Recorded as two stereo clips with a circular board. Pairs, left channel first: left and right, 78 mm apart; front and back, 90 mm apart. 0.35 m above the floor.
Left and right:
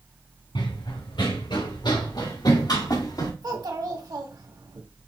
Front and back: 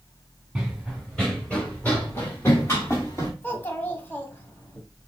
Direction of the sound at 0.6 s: 95° left.